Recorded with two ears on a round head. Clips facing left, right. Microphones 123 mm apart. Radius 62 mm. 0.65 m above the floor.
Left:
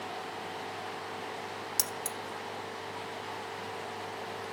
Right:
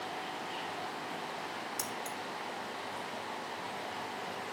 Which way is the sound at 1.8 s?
40° left (ahead or behind).